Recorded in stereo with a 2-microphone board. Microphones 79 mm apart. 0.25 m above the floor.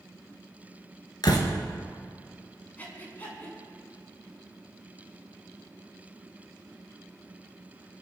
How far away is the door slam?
About 2.5 m.